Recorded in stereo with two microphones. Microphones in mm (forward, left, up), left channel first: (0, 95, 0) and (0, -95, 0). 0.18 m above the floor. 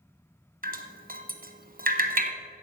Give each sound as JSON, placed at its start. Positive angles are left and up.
{"t": 0.6, "sound": "dripping", "side_deg": -50, "distance_m": 0.8}